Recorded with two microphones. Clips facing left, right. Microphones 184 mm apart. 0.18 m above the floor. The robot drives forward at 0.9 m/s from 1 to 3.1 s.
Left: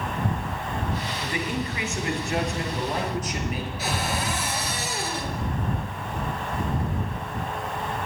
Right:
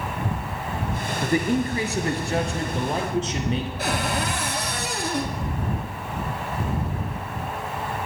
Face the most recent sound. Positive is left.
turn(degrees=-55)  # may be behind; listen again after turning